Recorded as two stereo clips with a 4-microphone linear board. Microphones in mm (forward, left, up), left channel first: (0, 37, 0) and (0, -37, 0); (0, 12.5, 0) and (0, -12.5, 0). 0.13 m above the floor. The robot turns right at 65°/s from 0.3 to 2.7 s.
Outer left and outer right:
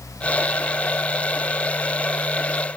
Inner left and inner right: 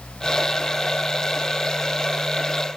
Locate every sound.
Only background noise.